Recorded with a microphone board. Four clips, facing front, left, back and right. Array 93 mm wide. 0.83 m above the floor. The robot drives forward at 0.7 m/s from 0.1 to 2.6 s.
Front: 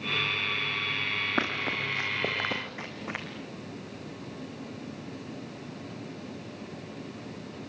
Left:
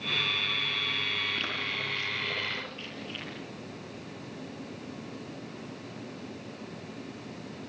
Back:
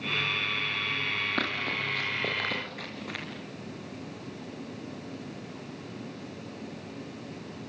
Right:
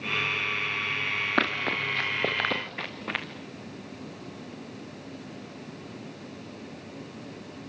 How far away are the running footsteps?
About 4.5 m.